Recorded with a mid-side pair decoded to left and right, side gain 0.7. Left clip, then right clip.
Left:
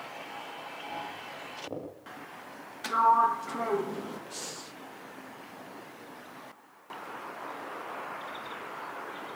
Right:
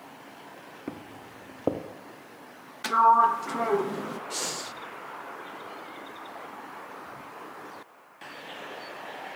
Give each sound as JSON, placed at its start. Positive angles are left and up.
{"t": 0.9, "sound": "footsteps", "azimuth_deg": -65, "distance_m": 5.0}
{"t": 2.8, "sound": "a sliding door", "azimuth_deg": -20, "distance_m": 1.7}
{"t": 4.3, "sound": "breathing", "azimuth_deg": -35, "distance_m": 0.7}